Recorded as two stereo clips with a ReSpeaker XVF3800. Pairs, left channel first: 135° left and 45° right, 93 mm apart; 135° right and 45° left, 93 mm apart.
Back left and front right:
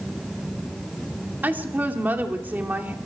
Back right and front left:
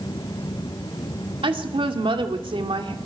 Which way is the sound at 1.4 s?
25° left.